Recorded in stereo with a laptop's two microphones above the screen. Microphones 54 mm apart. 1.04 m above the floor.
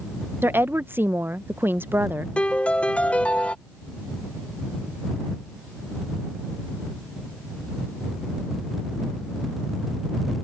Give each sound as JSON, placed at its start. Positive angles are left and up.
{"t": 0.4, "sound": "a woman speaking", "side_deg": -45}
{"t": 2.4, "sound": "a piano", "side_deg": 20}